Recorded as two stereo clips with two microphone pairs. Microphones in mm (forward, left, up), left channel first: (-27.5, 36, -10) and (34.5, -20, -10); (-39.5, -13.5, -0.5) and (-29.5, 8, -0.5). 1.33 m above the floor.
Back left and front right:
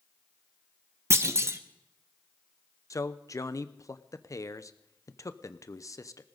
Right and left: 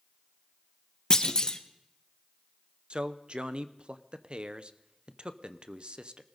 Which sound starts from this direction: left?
A man speaking, at 2.9 s.